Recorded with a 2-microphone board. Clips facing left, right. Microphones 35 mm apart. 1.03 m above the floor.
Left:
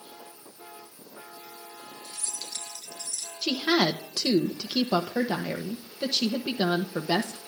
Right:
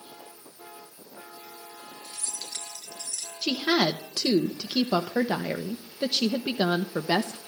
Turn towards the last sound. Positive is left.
turn(degrees=-10)  # may be behind; listen again after turning